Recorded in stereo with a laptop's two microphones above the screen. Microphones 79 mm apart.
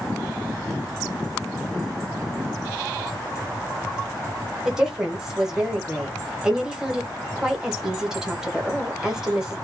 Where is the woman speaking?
10° right (ahead or behind), 1.0 m.